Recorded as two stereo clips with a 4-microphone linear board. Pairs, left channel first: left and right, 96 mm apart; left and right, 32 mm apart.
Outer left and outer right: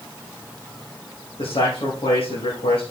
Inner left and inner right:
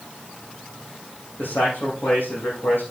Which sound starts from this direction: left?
A man speaking, at 1.4 s.